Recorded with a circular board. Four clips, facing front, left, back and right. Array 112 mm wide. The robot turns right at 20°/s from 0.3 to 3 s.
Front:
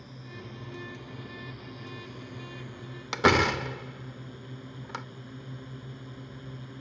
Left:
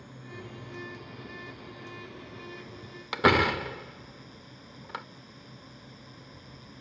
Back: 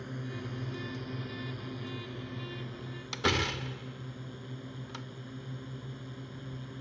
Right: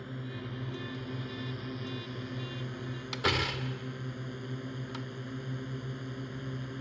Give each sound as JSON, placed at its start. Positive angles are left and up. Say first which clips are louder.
{"t": 0.0, "sound": "a drone", "louder": "right 4 dB, back 5 dB", "azimuth_deg": -145}
{"t": 3.1, "sound": "a door slam", "louder": "left 10 dB, front 9 dB", "azimuth_deg": 40}